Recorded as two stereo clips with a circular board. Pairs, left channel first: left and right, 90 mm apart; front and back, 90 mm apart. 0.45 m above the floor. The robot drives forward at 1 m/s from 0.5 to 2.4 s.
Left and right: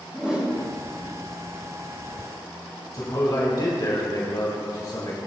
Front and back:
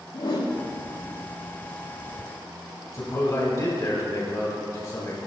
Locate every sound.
0.1 s a whoosh: 10° right, 5 m
2.9 s a man speaking: 50° left, 3 m